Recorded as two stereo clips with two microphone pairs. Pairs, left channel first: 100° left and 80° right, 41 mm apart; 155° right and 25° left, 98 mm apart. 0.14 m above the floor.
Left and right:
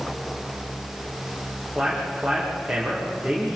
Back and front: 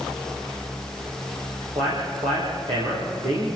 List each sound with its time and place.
1.8 s a man speaking: straight ahead, 7 m